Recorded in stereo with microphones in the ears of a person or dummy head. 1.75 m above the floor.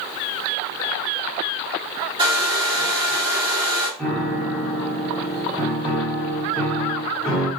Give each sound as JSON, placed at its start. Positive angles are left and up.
{"t": 2.2, "sound": "a hair dryer", "side_deg": -20, "distance_m": 0.9}
{"t": 4.0, "sound": "a piano", "side_deg": 5, "distance_m": 1.4}